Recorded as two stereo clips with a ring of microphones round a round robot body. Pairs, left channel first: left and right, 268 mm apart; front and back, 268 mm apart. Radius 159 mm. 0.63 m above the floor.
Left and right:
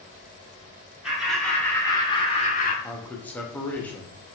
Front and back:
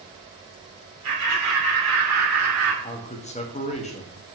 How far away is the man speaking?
About 0.9 m.